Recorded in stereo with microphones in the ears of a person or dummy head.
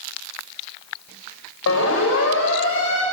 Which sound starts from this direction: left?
A siren, at 1.7 s.